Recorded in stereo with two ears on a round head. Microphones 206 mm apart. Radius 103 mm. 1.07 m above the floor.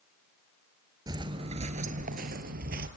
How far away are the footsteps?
About 1.2 m.